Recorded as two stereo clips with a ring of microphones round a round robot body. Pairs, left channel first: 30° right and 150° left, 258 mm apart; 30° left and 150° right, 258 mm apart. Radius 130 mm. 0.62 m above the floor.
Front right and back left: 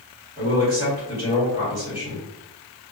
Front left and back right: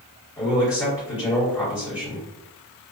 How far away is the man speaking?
About 1.4 m.